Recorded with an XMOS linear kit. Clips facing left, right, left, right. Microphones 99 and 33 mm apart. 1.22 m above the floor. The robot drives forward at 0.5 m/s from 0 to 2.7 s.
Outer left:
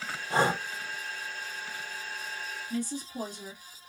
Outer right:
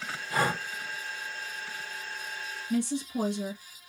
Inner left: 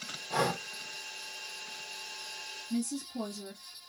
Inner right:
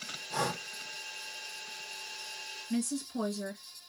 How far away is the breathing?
About 0.6 m.